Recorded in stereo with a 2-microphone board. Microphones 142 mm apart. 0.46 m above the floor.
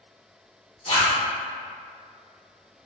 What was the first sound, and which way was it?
A zipper, 40° left (ahead or behind).